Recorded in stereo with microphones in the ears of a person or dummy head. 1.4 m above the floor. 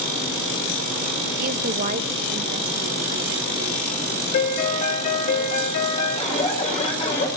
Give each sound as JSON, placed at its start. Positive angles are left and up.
{"t": 1.4, "sound": "a woman speaking", "side_deg": -50, "distance_m": 0.8}
{"t": 4.3, "sound": "a piano", "side_deg": 45, "distance_m": 1.3}
{"t": 6.2, "sound": "an alarm", "side_deg": 35, "distance_m": 6.0}